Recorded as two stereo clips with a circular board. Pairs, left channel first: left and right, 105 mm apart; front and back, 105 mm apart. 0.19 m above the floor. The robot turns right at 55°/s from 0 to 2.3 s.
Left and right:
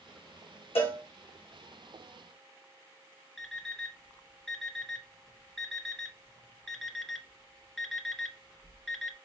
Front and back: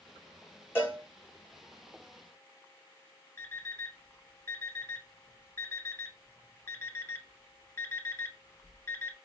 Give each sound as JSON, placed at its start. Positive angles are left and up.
{"t": 0.8, "sound": "a cowbell", "azimuth_deg": 70, "distance_m": 1.7}
{"t": 3.4, "sound": "an alarm clock", "azimuth_deg": 10, "distance_m": 0.5}